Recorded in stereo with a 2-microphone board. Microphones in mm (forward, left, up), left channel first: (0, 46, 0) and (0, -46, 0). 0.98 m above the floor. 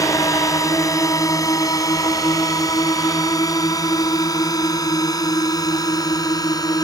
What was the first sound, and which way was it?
A drone, 35° left (ahead or behind).